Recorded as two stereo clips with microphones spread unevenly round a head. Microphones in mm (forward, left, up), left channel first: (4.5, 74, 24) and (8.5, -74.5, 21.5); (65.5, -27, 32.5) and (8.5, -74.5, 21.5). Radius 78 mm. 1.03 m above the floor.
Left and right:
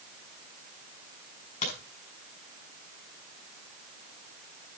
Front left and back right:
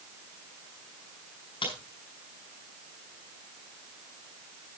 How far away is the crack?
About 6.5 m.